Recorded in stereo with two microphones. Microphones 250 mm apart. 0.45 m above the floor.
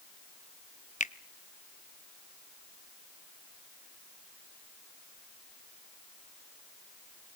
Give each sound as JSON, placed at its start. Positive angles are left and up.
{"t": 1.0, "sound": "a finger snap", "side_deg": 30, "distance_m": 0.6}